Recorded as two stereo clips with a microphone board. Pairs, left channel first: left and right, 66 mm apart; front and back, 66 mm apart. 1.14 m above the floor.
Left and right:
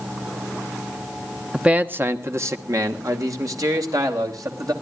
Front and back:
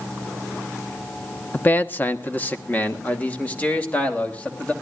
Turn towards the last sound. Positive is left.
turn(degrees=-70)